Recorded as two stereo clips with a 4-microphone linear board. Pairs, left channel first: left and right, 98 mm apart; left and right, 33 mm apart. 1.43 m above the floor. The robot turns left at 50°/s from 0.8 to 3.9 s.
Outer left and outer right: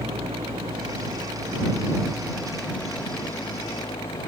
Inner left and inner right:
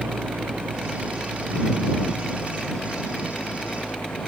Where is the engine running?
90° right; by 4.3 s 115° left.